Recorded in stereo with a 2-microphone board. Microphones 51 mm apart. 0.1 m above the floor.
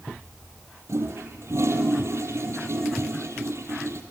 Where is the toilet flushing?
65° right (ahead or behind), 2.5 m.